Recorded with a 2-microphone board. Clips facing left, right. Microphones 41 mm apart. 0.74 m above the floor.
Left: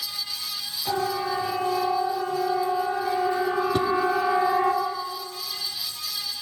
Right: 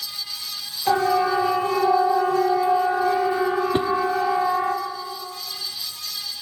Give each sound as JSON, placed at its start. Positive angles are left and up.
{"t": 0.9, "sound": "a siren", "side_deg": -55, "distance_m": 4.0}
{"t": 3.7, "sound": "a whoosh", "side_deg": -35, "distance_m": 0.6}